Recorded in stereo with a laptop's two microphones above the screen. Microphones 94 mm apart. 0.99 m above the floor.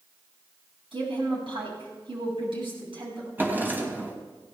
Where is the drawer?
20° right (ahead or behind), 2.5 m.